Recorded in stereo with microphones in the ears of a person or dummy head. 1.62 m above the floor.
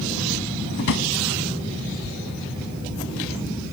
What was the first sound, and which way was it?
A drawer, 65° left (ahead or behind).